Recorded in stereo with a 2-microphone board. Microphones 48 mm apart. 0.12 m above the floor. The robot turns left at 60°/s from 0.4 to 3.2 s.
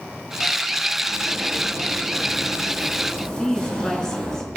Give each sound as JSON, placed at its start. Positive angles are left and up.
{"t": 1.1, "sound": "a zipper", "azimuth_deg": -75, "distance_m": 3.5}
{"t": 3.4, "sound": "a woman speaking", "side_deg": 15, "distance_m": 1.4}